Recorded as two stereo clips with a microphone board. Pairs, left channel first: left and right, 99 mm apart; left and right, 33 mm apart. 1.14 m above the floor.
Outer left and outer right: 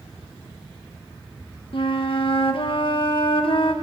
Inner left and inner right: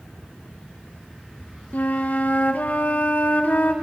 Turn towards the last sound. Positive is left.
turn(degrees=60)  # may be behind; listen again after turning